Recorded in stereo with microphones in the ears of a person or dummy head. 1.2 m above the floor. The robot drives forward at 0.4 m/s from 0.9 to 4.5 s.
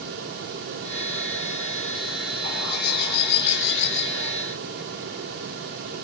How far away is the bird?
About 3.5 m.